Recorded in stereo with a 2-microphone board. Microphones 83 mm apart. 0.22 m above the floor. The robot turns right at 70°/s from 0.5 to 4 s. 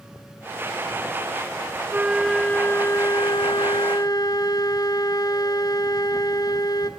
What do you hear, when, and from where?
1.9 s a flute: 25° right, 0.8 m; by 6.9 s 120° left, 0.8 m